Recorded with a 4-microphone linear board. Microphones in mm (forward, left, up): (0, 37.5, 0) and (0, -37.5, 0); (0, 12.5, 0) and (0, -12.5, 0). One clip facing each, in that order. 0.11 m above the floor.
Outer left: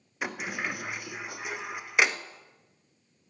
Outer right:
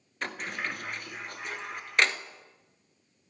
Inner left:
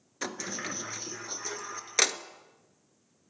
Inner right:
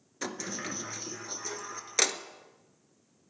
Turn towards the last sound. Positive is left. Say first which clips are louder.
# outer left 2 dB, inner left 1 dB
turn(degrees=10)  # may be behind; listen again after turning